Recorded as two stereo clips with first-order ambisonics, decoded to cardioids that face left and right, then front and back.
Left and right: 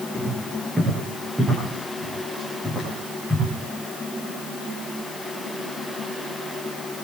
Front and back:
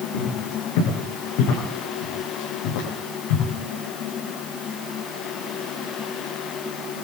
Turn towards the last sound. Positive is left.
turn(degrees=5)